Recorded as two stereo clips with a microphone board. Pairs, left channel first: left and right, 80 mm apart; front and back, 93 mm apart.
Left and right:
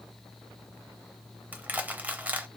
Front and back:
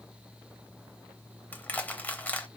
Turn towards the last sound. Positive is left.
turn(degrees=-50)